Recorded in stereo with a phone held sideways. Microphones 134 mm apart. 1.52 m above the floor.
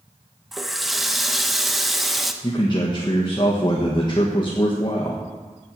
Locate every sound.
0.5 s a running tap: centre (ahead or behind), 0.8 m
2.4 s a man speaking: 35° left (ahead or behind), 1.3 m